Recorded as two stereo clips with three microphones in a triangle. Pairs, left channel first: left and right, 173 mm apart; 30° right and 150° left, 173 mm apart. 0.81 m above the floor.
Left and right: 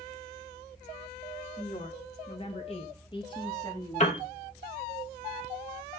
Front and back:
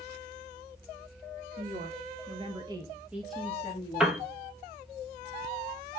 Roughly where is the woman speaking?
Behind left.